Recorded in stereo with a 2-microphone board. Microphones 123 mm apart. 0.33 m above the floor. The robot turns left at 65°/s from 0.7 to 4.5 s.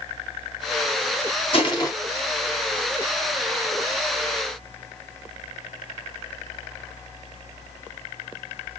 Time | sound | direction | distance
1.5 | crushing | 50° left (ahead or behind) | 2.5 m